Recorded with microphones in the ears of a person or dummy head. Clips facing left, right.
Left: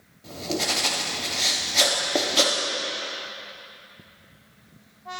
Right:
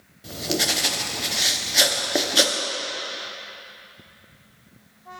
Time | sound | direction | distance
0.2 | writing | 15° right (ahead or behind) | 0.7 m